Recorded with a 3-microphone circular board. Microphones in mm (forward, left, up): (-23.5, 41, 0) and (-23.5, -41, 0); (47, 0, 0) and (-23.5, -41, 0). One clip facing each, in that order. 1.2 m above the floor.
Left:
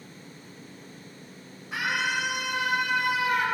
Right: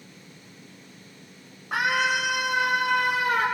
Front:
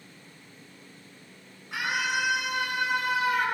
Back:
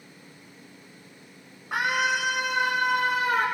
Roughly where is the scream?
Right.